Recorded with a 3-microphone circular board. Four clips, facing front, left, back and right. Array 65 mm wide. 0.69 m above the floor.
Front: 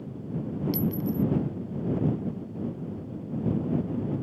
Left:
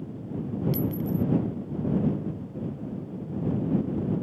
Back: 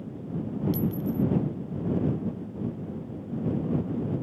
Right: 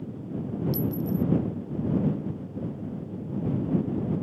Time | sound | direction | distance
0.7 | a clink | 50° left | ?